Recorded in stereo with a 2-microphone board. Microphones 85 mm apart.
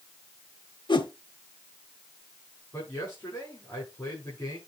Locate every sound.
0.9 s a whoosh: 70° left (ahead or behind), 1.0 m
2.7 s a man speaking: 25° left (ahead or behind), 8.5 m